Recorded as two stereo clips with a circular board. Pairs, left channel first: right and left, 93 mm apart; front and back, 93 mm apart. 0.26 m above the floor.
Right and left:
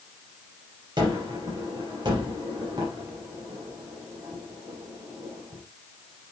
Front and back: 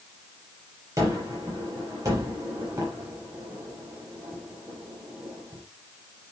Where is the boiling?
No boiling in this recording.